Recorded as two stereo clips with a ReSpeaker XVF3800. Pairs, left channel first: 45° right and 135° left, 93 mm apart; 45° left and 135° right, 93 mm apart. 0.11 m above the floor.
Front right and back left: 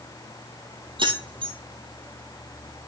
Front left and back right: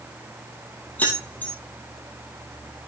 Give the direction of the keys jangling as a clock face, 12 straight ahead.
8 o'clock.